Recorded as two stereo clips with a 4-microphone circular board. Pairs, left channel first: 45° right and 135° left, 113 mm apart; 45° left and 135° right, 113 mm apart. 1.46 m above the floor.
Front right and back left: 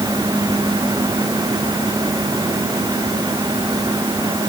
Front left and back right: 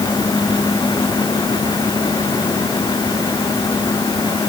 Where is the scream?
No scream in this recording.